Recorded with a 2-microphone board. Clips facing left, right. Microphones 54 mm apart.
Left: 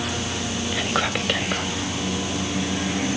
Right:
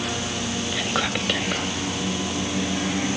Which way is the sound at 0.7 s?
10° left (ahead or behind).